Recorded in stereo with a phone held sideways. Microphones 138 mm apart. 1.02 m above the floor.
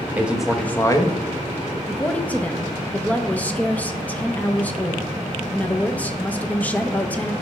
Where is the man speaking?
15° right (ahead or behind), 1.1 m; by 1.2 s 35° left (ahead or behind), 1.0 m.